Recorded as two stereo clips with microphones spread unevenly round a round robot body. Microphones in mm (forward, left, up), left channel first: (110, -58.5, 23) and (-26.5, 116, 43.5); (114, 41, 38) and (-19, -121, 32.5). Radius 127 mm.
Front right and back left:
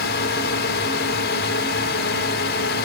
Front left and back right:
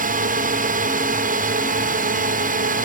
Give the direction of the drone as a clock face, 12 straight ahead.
3 o'clock.